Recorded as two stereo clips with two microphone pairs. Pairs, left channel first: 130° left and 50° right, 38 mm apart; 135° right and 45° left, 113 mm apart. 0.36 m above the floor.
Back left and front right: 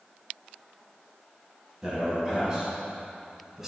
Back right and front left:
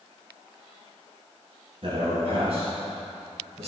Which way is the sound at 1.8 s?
20° left.